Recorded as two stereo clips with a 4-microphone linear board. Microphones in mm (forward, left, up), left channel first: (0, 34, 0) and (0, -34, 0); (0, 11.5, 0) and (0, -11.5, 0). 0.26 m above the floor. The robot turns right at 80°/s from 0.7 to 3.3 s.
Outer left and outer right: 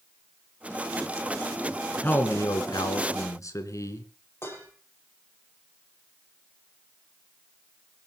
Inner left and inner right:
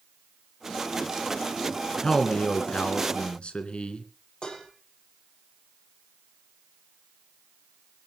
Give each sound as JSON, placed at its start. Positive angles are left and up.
{"t": 2.0, "sound": "a man speaking", "azimuth_deg": 25, "distance_m": 3.0}
{"t": 4.4, "sound": "dishes clattering", "side_deg": 35, "distance_m": 5.0}